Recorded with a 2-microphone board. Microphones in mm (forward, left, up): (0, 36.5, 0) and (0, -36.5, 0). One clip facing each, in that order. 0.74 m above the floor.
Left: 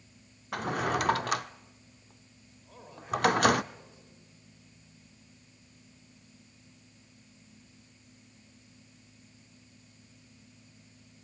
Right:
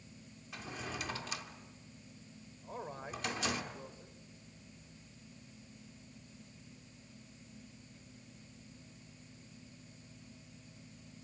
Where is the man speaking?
35° right (ahead or behind), 4 m.